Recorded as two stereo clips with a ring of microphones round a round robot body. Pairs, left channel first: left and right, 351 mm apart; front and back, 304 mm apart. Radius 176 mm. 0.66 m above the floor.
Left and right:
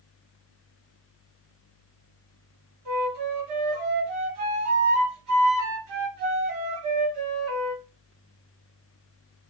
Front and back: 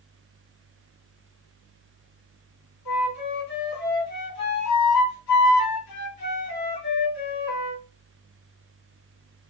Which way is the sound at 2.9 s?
50° right.